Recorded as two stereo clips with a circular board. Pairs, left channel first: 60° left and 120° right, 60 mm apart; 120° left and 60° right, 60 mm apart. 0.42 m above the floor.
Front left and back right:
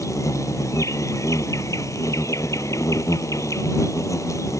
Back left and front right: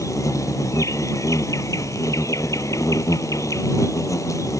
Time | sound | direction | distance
0.0 | an insect | 90° left | ?